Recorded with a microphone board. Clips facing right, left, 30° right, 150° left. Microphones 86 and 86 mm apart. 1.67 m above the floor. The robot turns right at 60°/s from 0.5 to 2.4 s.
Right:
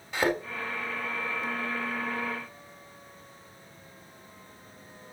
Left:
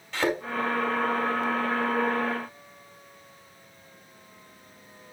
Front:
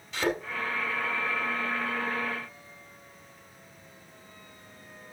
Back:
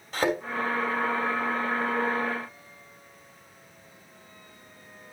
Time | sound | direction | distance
0.1 | a thud | 165° right | 4 m